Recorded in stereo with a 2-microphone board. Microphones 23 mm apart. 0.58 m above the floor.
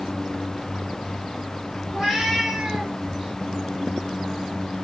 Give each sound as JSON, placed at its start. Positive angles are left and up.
{"t": 1.9, "sound": "a cat meowing", "side_deg": -10, "distance_m": 3.5}